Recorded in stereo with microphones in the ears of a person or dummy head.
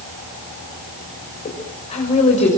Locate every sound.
1.4 s a woman speaking: 40° left (ahead or behind), 6 m